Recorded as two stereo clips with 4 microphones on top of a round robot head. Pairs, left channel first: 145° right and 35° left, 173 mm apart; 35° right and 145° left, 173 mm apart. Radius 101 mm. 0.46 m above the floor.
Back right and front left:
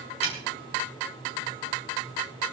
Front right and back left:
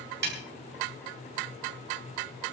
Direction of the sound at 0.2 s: 160° left.